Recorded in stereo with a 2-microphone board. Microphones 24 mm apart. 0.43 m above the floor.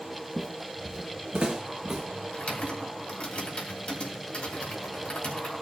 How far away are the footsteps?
About 0.6 m.